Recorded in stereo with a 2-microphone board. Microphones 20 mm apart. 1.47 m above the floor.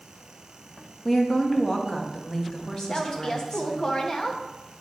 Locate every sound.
1.1 s a woman speaking: 25° left (ahead or behind), 1.2 m
2.9 s a woman speaking: 40° left (ahead or behind), 1.0 m